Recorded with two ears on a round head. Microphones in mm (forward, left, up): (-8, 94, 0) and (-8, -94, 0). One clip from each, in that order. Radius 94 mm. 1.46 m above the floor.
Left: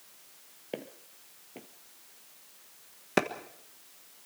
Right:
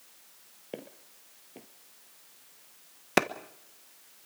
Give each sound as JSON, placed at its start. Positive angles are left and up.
{"t": 0.7, "sound": "footsteps", "side_deg": 20, "distance_m": 1.6}
{"t": 3.2, "sound": "a clap", "side_deg": -25, "distance_m": 1.2}